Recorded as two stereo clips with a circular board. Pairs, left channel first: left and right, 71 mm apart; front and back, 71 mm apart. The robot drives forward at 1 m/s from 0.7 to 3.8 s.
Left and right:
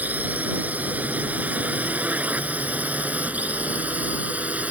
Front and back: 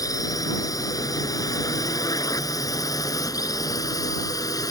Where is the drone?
25° right; by 4.7 s 20° right.